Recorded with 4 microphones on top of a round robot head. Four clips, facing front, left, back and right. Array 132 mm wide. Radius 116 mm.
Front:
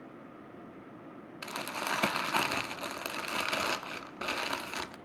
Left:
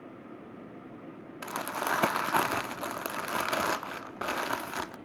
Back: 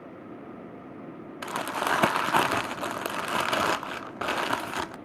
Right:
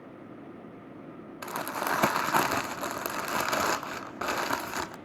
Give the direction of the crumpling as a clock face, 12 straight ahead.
6 o'clock.